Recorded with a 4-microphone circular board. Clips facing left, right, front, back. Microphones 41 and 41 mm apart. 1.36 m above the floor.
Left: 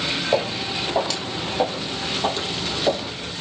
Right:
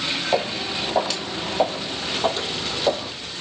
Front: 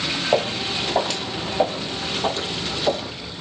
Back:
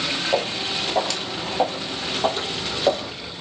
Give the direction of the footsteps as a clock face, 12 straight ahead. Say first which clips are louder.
Left 1 dB, front 4 dB; 12 o'clock.